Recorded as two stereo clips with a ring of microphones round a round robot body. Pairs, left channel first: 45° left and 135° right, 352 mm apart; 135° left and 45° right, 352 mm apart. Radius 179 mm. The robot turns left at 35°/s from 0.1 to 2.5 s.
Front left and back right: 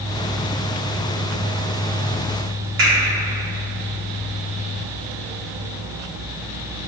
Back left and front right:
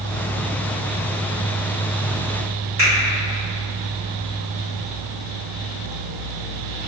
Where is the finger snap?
100° right, 2.0 m.